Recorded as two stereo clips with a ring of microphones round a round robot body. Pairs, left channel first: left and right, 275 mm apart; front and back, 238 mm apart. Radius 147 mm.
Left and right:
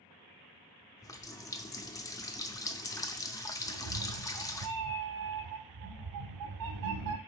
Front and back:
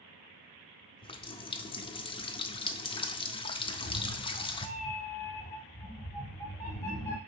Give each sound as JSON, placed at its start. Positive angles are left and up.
{"t": 1.0, "sound": "a running tap", "azimuth_deg": 30, "distance_m": 0.5}
{"t": 3.7, "sound": "a cat meowing", "azimuth_deg": -80, "distance_m": 0.7}